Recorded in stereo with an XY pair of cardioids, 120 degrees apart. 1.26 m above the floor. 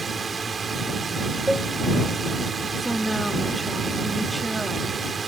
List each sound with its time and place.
0.0 s a drone: 25° right
1.5 s a cowbell: 5° right
2.8 s a woman speaking: 5° right